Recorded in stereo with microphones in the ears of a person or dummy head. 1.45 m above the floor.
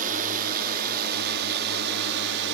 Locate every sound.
0.0 s a drone: 45° right (ahead or behind); by 2.5 s 65° right (ahead or behind)